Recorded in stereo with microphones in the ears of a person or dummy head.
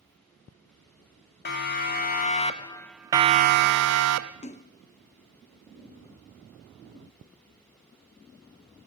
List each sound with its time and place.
1.4 s a siren: 50° left (ahead or behind), 2 m; by 4.3 s 85° right, 1.5 m
4.4 s a splash: 30° left (ahead or behind), 0.5 m